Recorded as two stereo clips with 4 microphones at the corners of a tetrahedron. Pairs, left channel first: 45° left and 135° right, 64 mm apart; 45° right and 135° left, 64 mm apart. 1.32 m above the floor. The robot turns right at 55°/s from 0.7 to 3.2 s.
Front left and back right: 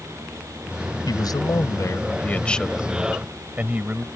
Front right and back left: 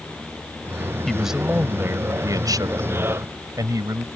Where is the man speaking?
40° left; by 4.1 s 160° left.